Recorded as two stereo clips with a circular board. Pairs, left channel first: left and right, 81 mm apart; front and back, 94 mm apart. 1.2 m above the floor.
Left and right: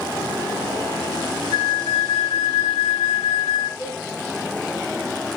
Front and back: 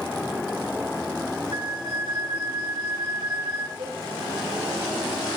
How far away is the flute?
About 10 m.